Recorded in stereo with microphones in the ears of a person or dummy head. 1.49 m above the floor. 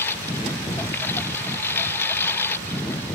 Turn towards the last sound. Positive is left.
turn(degrees=10)  # may be behind; listen again after turning